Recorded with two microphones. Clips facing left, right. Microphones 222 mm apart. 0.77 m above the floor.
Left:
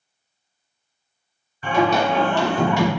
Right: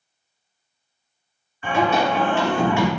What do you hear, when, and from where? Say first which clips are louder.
1.6 s singing: left 1 dB; 35° left (ahead or behind), 1.6 m